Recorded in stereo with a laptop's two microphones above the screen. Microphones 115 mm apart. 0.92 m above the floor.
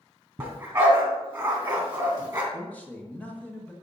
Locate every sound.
0.4 s a dog barking: 20° right (ahead or behind), 2.5 m
2.5 s a man speaking: 15° left (ahead or behind), 0.9 m